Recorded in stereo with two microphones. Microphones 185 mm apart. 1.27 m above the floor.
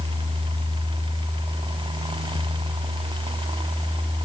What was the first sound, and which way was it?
Only background noise.